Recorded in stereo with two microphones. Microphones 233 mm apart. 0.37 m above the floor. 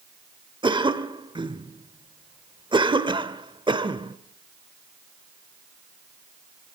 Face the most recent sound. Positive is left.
turn(degrees=-20)  # may be behind; listen again after turning